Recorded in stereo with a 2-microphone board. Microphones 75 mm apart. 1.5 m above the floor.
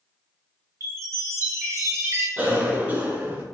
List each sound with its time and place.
0.8 s a chime: 40° right (ahead or behind), 0.7 m
2.4 s a cough: 20° right (ahead or behind), 0.6 m